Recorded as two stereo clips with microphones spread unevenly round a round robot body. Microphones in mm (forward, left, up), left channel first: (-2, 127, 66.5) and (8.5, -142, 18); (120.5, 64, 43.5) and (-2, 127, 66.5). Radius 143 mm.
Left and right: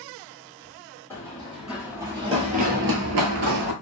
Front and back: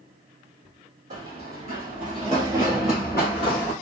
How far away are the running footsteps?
About 1.8 m.